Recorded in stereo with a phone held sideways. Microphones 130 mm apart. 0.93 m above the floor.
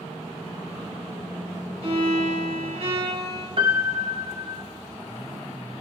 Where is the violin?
50° right (ahead or behind), 4.5 m.